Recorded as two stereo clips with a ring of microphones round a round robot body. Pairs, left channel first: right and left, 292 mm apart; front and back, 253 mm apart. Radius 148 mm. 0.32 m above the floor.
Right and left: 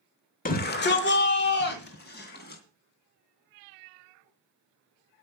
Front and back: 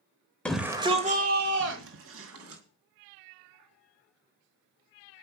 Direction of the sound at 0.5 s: 80° right.